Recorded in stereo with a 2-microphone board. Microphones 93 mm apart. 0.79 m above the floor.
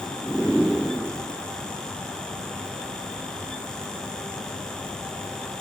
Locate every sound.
Only background noise.